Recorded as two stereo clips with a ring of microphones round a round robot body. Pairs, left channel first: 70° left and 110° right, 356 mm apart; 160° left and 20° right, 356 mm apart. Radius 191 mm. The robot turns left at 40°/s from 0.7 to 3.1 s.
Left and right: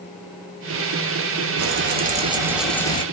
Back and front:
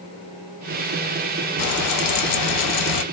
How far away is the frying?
About 0.7 m.